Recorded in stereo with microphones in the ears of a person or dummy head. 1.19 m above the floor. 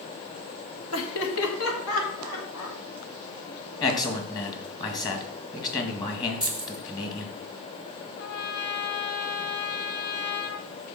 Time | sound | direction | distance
0.9 | laughter | 65° left (ahead or behind) | 1.7 m
3.8 | a man speaking | 20° left (ahead or behind) | 1.8 m
6.4 | keys jangling | 20° left (ahead or behind) | 2 m
8.2 | a trumpet | 45° left (ahead or behind) | 0.7 m